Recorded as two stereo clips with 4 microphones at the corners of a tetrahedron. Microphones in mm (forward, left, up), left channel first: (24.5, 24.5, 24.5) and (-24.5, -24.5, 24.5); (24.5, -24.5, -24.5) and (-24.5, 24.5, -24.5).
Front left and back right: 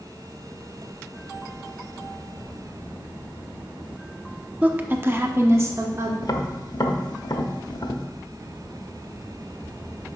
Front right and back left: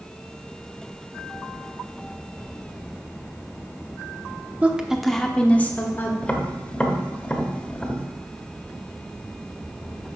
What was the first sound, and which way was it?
A woman speaking, straight behind.